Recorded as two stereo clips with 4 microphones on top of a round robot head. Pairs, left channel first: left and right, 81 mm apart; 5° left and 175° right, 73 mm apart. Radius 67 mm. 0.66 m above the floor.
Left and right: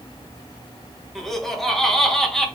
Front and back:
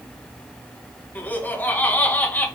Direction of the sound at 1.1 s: 10° left.